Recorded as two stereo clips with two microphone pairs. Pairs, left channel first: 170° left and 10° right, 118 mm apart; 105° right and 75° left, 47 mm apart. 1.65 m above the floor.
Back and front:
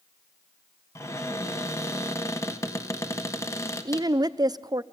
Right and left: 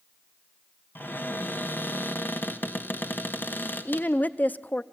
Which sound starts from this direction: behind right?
A cupboard door, at 0.9 s.